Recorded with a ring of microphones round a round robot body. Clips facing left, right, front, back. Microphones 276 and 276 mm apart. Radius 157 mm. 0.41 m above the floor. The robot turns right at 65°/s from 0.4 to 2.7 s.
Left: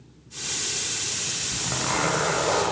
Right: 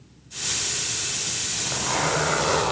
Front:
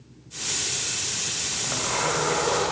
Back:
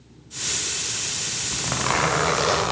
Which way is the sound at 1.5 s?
130° left.